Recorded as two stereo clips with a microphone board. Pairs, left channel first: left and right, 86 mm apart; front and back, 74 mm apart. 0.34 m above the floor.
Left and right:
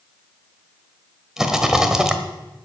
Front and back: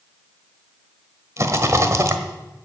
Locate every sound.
1.4 s a rattle: 170° right, 1.3 m